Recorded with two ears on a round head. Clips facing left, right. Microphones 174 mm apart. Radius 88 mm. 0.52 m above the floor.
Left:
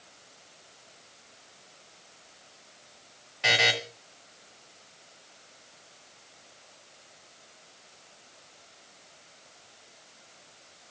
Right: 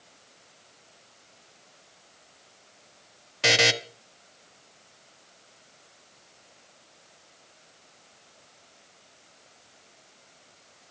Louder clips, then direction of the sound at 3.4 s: Right 4 dB; 55° right (ahead or behind).